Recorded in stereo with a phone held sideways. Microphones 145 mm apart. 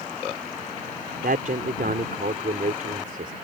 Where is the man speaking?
80° right.